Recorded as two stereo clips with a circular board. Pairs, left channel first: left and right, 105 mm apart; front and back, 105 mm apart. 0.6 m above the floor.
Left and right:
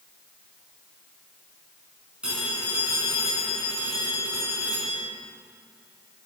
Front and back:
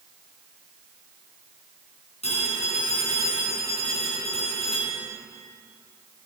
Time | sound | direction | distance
2.2 | a phone ringing | 10° right | 5 m